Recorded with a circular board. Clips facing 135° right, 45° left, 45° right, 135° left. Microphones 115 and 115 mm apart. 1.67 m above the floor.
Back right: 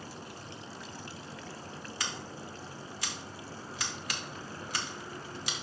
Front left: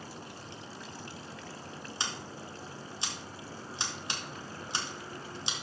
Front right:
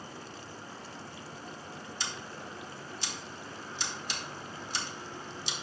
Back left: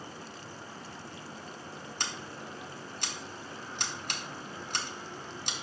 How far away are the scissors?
About 1.6 m.